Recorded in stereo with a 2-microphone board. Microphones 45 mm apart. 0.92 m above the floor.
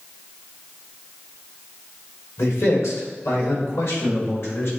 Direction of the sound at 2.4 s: 85° left.